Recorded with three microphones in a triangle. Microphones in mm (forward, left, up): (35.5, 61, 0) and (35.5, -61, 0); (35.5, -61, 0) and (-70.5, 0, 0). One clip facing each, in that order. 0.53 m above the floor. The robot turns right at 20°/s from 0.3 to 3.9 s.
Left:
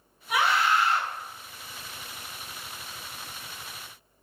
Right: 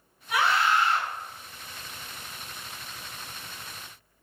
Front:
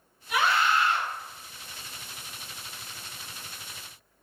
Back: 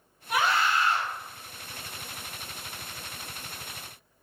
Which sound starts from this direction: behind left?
A scream, at 0.3 s.